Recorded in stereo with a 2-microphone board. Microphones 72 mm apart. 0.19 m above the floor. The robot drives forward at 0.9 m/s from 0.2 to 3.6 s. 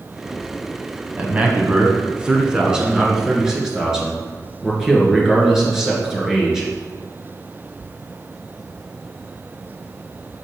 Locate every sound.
1.2 s a man speaking: 20° right (ahead or behind), 1.1 m; by 6.7 s 10° right (ahead or behind), 2.5 m